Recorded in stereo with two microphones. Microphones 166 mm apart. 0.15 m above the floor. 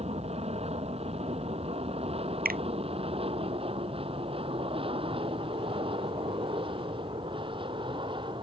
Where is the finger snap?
65° right (ahead or behind).